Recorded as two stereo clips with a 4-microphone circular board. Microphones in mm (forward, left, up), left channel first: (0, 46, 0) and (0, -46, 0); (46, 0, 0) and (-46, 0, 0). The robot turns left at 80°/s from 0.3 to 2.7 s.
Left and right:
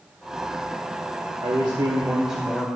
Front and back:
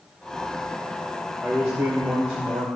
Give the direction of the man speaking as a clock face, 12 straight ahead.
3 o'clock.